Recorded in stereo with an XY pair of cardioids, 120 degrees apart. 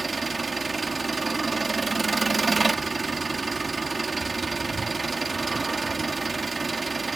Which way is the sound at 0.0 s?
20° right.